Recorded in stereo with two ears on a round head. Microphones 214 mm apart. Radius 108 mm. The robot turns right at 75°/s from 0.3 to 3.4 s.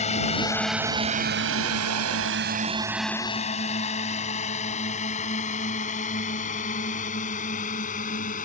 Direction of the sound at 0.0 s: 30° left (ahead or behind).